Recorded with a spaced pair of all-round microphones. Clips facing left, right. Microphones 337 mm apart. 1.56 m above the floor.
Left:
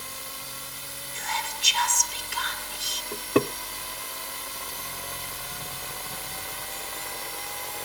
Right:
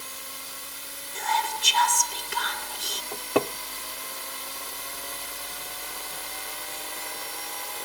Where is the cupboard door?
25° left (ahead or behind).